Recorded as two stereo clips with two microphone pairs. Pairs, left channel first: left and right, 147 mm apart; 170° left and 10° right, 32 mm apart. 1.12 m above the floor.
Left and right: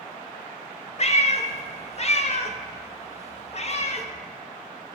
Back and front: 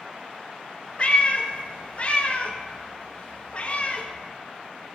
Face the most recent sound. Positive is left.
turn(degrees=125)